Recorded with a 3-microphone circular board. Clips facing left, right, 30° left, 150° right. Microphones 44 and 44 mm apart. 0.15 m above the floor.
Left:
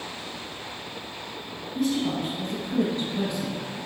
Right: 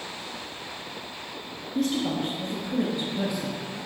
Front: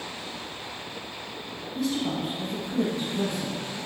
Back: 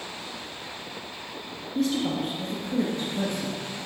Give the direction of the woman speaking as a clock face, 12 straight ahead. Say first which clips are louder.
Even, back 2 dB; 4 o'clock.